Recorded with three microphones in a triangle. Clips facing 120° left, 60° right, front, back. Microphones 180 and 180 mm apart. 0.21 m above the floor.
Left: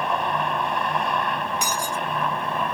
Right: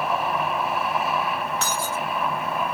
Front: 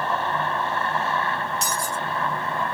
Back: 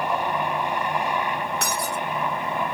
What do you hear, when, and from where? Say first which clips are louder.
0.0 s a helicopter: even, back 1 dB; 140° right
1.6 s breaking glass: even, back 1 dB; 165° right